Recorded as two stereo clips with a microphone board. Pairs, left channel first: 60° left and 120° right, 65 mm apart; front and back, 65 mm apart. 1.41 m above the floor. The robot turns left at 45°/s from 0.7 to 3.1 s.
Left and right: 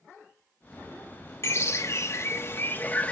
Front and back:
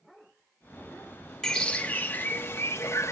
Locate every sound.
1.4 s a bird: 80° left, 1.0 m; by 3.1 s 5° left, 1.0 m